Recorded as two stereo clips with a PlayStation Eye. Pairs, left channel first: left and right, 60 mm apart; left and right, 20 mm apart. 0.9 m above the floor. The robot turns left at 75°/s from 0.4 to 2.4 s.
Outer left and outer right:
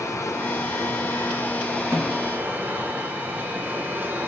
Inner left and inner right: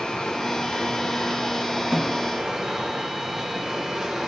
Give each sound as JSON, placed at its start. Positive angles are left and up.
{"t": 0.0, "sound": "running water", "azimuth_deg": 115, "distance_m": 0.9}
{"t": 1.9, "sound": "a snare drum", "side_deg": -50, "distance_m": 2.5}